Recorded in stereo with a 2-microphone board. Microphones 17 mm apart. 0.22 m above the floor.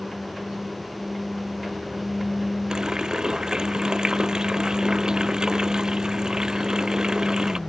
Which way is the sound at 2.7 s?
35° right (ahead or behind).